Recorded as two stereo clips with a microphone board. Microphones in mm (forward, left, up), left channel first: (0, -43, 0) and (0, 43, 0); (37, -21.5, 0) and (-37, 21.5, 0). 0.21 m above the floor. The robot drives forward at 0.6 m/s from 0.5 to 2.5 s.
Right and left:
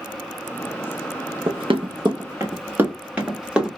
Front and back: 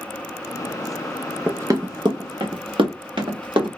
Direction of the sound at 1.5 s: 85° left.